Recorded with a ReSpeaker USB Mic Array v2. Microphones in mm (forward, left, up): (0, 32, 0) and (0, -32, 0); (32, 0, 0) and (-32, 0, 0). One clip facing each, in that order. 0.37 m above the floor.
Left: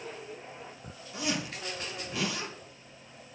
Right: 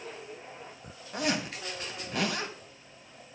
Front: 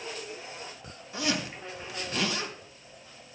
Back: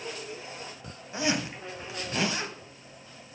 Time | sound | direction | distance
1.1 | a zipper | 115° right | 2 m